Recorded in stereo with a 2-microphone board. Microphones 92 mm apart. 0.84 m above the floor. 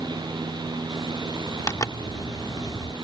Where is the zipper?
35° left (ahead or behind).